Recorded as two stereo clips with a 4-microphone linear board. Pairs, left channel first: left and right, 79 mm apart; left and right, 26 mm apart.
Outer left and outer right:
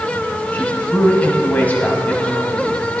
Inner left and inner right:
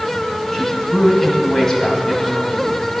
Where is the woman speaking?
20° left (ahead or behind), 1.5 m.